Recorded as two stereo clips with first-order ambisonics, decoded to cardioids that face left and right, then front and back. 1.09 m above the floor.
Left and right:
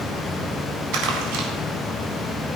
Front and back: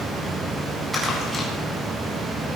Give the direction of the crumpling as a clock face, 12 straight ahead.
3 o'clock.